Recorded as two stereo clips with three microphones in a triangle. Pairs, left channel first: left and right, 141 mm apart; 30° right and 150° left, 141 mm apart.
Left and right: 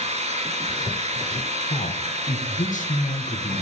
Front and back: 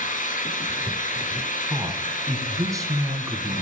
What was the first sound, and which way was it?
An engine running, 50° right.